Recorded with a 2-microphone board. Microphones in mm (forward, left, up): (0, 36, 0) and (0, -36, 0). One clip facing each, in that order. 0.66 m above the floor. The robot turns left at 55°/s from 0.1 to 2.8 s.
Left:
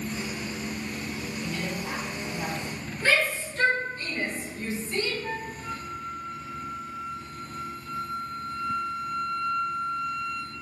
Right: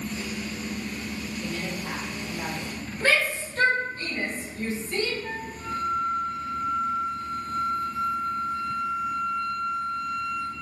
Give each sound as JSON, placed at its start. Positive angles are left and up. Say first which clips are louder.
{"t": 1.4, "sound": "a woman speaking", "louder": "left 1 dB", "azimuth_deg": -50, "distance_m": 1.1}
{"t": 3.0, "sound": "a shout", "louder": "right 1 dB", "side_deg": -60, "distance_m": 1.9}
{"t": 5.2, "sound": "a flute", "louder": "even", "side_deg": -45, "distance_m": 1.6}